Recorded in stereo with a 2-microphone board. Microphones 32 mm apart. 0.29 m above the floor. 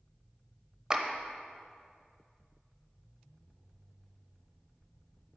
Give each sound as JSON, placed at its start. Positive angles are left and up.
{"t": 0.9, "sound": "a clap", "side_deg": -20, "distance_m": 0.7}